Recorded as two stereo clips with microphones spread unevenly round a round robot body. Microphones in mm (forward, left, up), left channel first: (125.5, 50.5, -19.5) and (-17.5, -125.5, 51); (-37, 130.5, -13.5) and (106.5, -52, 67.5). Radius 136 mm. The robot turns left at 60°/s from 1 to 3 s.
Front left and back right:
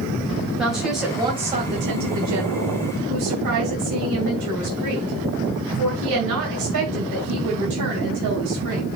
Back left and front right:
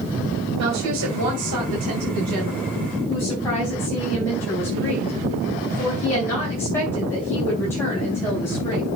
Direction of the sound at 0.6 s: 35° right.